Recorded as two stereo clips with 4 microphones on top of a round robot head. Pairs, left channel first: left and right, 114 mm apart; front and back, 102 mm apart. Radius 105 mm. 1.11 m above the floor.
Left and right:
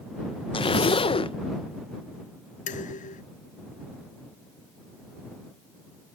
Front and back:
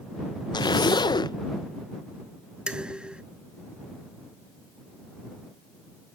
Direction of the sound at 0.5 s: 50° left.